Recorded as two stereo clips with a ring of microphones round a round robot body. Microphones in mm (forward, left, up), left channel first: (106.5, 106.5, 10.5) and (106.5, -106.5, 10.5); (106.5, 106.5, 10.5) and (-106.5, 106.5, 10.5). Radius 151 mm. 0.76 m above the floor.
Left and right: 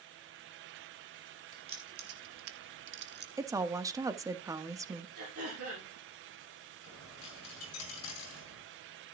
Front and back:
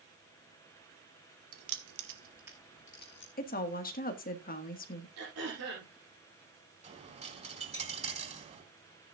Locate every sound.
1.5 s keys jangling: 170° right, 1.5 m; by 3.3 s 50° right, 1.5 m
3.4 s a woman speaking: 20° right, 1.2 m
5.2 s throat clearing: 140° right, 6.5 m
6.8 s a dropped coin: 120° left, 3.5 m